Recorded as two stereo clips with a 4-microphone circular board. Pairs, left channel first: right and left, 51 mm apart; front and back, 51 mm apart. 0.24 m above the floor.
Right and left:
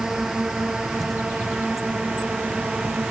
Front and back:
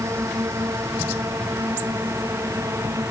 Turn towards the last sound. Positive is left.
turn(degrees=165)